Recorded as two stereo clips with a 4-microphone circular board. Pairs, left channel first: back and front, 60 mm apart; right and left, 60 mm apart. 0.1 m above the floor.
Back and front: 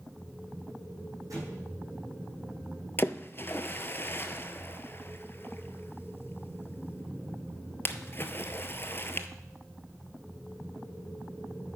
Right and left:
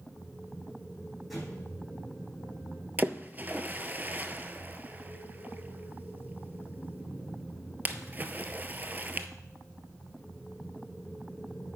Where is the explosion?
Straight ahead, 4.5 m.